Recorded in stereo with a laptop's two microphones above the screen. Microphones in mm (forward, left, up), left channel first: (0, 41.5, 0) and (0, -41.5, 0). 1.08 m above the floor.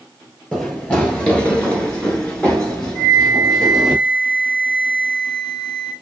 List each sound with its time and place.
0.5 s running footsteps: 10° left (ahead or behind), 1.5 m; by 4.0 s 5° left (ahead or behind), 1.5 m
3.0 s a flute: 65° left (ahead or behind), 1.9 m